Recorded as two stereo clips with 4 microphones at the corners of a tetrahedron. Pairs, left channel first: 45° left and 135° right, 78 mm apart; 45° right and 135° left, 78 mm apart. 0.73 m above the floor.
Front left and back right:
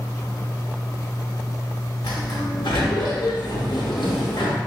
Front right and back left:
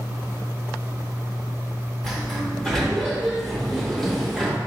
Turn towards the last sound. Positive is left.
turn(degrees=40)